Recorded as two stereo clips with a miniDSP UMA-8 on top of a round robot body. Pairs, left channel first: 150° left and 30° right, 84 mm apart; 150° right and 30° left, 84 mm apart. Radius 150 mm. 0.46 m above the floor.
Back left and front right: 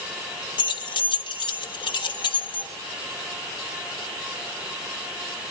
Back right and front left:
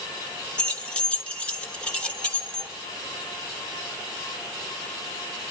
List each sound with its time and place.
0.6 s keys jangling: 130° left, 1.5 m